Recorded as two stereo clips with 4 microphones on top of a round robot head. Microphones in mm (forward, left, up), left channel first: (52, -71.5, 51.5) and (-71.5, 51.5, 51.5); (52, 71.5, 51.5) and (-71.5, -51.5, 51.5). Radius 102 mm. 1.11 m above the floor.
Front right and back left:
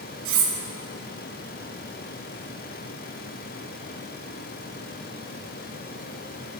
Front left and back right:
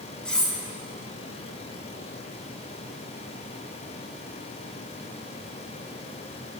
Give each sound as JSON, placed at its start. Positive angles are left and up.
{"t": 0.2, "sound": "cutlery clinking", "azimuth_deg": 130, "distance_m": 0.7}